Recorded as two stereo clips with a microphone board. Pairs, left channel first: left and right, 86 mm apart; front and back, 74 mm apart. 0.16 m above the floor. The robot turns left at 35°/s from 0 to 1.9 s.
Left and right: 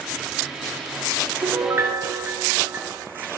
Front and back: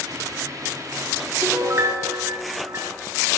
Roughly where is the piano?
Behind right.